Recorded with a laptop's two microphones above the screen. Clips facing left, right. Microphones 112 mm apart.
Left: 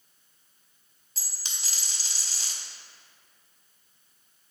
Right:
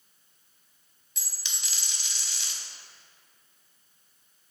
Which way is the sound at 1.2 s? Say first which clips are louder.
Even; 40° left (ahead or behind).